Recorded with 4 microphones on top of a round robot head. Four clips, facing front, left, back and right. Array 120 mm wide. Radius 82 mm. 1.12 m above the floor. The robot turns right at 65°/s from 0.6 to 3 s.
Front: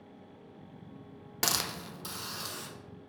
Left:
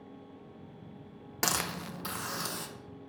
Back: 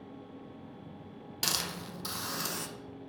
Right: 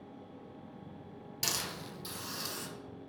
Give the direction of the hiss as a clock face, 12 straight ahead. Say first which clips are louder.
Left 7 dB, front 3 dB; 10 o'clock.